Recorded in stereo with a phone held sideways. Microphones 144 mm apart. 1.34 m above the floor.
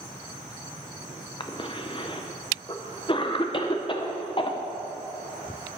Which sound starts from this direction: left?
A cough, at 1.4 s.